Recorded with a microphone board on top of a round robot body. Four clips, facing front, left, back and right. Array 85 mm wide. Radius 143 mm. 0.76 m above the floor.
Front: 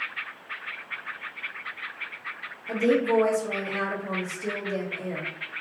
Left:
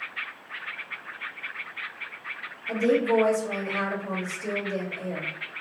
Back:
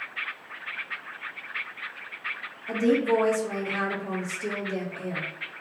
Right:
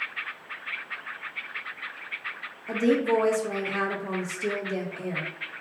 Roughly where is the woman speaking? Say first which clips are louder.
Even, even; behind right.